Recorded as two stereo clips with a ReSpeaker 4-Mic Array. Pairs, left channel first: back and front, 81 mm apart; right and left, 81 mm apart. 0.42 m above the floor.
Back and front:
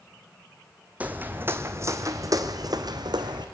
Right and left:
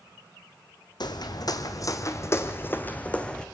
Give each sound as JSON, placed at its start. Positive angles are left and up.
{"t": 1.0, "sound": "footsteps", "azimuth_deg": -70, "distance_m": 1.4}